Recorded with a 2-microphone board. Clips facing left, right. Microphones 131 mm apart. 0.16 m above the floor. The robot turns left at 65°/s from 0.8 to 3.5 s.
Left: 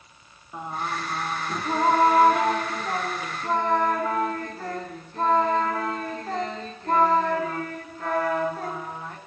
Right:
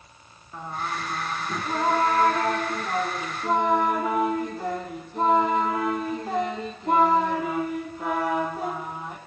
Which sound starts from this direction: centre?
Singing, at 0.5 s.